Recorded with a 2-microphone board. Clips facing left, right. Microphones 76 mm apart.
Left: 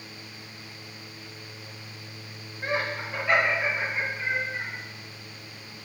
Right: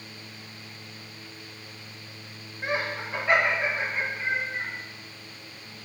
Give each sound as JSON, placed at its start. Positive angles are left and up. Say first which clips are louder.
{"t": 2.6, "sound": "laughter", "louder": "even", "side_deg": -15, "distance_m": 0.8}